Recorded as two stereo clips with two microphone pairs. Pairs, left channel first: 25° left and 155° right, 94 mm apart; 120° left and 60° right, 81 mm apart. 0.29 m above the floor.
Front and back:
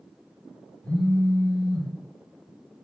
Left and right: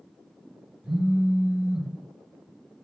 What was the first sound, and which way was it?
A phone buzzing, 15° right.